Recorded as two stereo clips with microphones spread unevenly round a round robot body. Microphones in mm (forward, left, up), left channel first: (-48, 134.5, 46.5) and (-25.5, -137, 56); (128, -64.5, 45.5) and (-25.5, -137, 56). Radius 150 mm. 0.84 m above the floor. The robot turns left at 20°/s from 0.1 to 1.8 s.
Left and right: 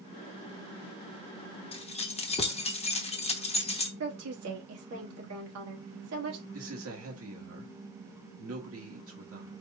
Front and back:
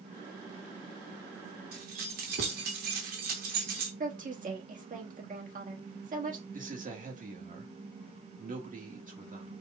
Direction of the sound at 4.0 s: 115° right.